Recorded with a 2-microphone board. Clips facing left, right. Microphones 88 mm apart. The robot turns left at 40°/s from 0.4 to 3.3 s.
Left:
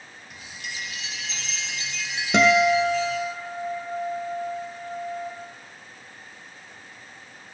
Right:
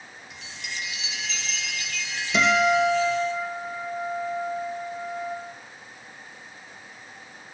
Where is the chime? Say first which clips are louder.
Even; 95° left, 2 m; by 3.3 s 20° right, 2 m.